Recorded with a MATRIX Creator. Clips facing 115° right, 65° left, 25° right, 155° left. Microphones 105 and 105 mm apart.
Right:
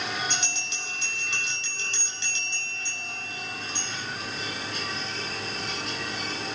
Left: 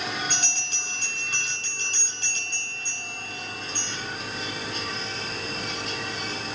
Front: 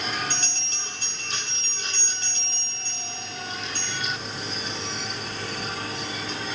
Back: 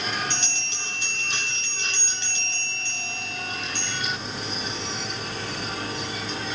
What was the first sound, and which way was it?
A bell, 25° left.